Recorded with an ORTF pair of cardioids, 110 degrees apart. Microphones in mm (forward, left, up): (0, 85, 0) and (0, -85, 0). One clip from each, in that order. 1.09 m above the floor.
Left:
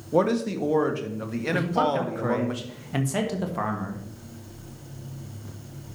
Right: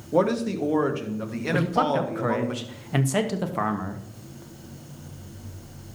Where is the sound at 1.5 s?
15° right, 1.2 m.